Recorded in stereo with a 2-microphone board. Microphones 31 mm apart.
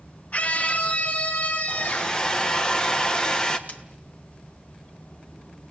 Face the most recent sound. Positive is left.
turn(degrees=55)  # may be behind; listen again after turning